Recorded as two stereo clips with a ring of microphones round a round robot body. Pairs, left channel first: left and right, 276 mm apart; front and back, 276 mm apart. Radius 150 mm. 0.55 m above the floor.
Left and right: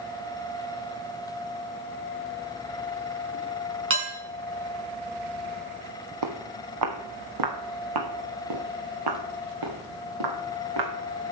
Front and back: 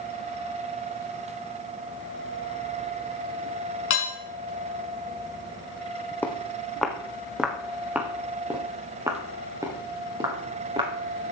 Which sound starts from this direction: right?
Footsteps, at 6.2 s.